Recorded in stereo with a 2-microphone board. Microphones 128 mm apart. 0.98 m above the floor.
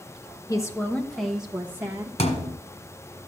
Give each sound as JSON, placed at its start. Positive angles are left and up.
{"t": 0.5, "sound": "a woman speaking", "side_deg": 30, "distance_m": 1.0}
{"t": 2.2, "sound": "a thud", "side_deg": 65, "distance_m": 1.6}